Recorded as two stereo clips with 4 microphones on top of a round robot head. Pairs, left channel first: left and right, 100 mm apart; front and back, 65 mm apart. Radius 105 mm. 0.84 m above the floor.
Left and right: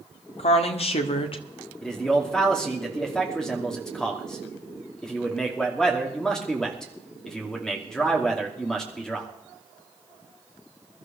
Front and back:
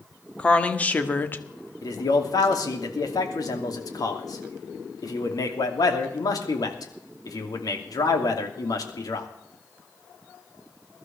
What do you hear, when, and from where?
0.4 s a woman speaking: 70° left, 1.8 m; by 1.7 s 50° left, 1.3 m
1.8 s a man speaking: 5° left, 2.5 m